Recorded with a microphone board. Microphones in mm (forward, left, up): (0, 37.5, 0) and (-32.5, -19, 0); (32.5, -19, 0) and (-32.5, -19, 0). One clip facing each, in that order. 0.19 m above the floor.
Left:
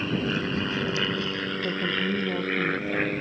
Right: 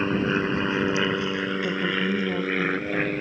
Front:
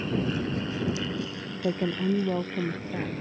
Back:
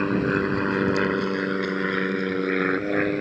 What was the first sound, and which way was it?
An aircraft, 170° right.